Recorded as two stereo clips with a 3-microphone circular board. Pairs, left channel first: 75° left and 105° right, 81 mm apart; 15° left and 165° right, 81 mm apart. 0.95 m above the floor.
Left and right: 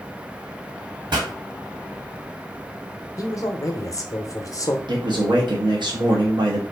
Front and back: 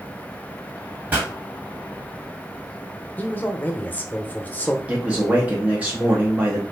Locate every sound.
1.1 s a pop: 95° right, 1.8 m
3.2 s a man speaking: 75° left, 0.6 m
4.9 s a man speaking: 90° right, 0.8 m